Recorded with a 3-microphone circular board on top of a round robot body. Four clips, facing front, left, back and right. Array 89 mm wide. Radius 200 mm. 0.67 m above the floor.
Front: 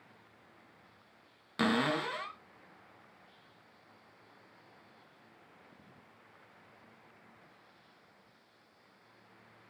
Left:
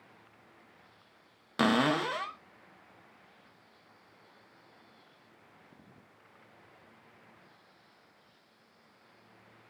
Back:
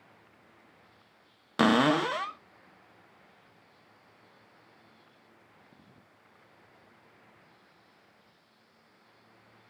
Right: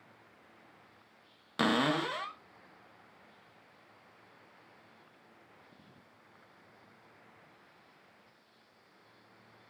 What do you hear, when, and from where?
1.6 s a cupboard door: 175° left, 0.8 m